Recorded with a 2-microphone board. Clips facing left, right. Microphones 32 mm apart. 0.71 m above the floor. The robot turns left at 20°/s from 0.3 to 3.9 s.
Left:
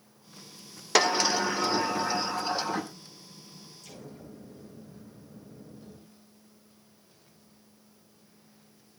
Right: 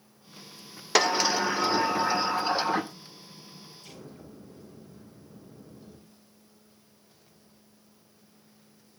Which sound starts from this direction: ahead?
A sliding door, at 0.9 s.